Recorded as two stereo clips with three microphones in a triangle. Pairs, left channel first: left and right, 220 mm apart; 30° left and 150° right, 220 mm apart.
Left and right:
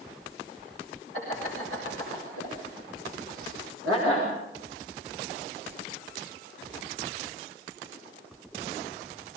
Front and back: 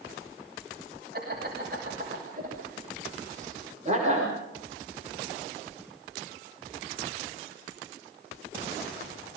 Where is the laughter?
105° right, 7 m; by 4.3 s 85° right, 6 m.